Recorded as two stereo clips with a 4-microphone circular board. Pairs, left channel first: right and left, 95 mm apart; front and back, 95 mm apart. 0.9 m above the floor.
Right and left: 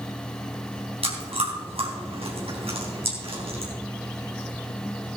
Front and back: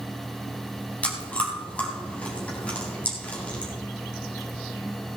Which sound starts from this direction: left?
Chewing, at 1.0 s.